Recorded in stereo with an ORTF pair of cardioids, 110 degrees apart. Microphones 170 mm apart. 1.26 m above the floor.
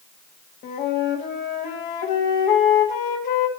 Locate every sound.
0.6 s a flute: 65° left, 1.4 m